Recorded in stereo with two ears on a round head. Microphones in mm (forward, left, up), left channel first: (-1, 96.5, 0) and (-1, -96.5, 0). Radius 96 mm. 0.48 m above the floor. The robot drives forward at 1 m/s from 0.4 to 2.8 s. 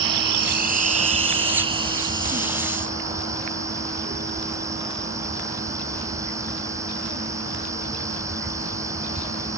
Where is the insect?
50° right (ahead or behind); by 9.6 s 15° right (ahead or behind).